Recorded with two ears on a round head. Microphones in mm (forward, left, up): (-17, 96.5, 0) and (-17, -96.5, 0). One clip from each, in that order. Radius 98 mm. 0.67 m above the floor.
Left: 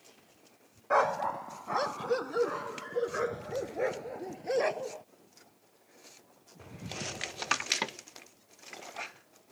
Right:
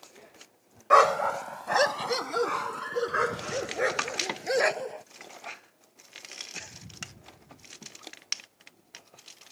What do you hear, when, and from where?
0.9 s a dog barking: 65° right (ahead or behind); by 5.0 s 60° right (ahead or behind)